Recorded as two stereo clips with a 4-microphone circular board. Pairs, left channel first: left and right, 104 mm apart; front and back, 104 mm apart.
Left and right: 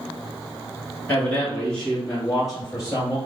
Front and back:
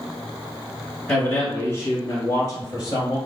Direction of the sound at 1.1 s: 55° left.